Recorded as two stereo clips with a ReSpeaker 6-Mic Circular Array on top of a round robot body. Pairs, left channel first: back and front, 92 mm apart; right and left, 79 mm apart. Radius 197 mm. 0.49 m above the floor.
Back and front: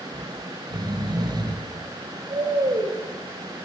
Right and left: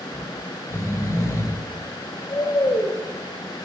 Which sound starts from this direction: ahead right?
Snoring, at 0.1 s.